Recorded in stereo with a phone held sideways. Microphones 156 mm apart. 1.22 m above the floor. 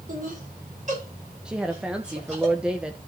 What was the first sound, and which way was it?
Laughter, 60° right (ahead or behind).